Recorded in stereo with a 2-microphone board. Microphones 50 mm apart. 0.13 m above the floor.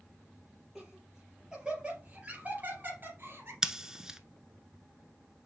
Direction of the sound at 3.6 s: 10° right (ahead or behind).